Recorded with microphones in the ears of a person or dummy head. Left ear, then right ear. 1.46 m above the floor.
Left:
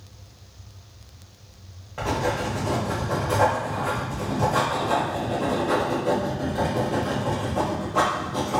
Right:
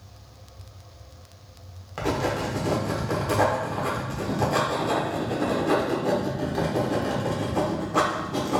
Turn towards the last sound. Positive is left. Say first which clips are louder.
# left 1 dB
turn(degrees=-80)